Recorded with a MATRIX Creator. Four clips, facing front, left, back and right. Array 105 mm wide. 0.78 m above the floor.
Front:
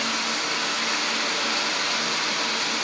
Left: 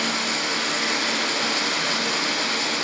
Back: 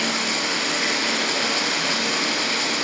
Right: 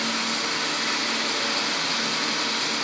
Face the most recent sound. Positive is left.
turn(degrees=155)